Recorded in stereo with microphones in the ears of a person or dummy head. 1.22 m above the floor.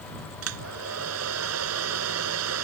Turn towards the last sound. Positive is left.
turn(degrees=-80)